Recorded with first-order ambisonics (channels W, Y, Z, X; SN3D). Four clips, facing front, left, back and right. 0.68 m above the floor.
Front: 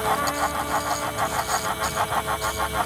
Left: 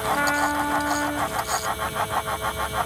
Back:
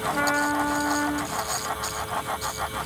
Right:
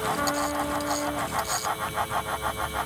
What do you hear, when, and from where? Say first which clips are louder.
0.1 s a trumpet: left 8 dB, even; 120° left, 1.9 m